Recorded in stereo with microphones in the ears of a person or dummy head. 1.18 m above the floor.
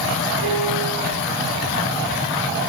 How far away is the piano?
About 7 m.